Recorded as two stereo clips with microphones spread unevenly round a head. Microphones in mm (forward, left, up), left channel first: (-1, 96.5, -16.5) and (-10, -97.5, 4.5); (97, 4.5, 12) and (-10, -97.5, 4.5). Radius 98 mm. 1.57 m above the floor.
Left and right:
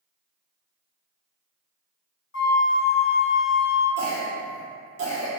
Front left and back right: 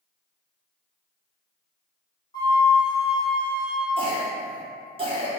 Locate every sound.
2.3 s a flute: 115° left, 0.6 m
4.0 s a cough: 85° right, 1.3 m